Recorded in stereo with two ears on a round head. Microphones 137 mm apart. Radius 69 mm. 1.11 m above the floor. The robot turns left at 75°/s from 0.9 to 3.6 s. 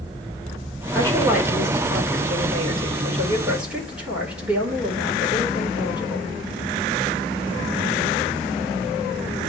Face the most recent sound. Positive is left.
turn(degrees=-175)